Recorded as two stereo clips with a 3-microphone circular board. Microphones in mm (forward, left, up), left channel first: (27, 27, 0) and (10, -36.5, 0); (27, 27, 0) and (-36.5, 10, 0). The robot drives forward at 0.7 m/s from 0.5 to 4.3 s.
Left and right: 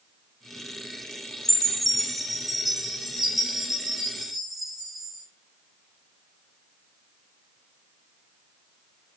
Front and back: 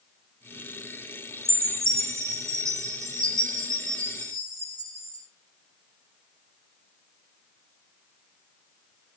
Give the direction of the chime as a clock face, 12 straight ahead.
7 o'clock.